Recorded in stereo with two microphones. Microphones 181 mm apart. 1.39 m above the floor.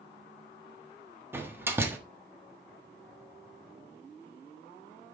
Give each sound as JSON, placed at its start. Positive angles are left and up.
{"t": 1.3, "sound": "a door slam", "side_deg": -10, "distance_m": 1.4}